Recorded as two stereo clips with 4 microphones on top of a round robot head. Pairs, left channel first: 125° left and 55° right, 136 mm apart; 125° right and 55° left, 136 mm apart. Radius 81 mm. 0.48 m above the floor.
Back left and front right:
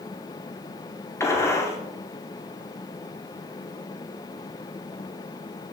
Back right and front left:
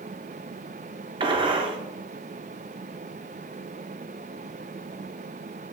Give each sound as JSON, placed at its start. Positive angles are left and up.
{"t": 1.2, "sound": "a gunshot", "azimuth_deg": 70, "distance_m": 1.2}